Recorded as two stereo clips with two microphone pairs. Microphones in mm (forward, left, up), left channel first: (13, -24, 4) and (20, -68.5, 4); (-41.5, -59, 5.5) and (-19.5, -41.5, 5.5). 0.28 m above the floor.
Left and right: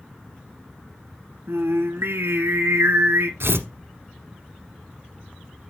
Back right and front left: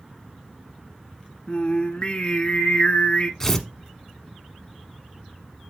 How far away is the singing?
About 1.1 m.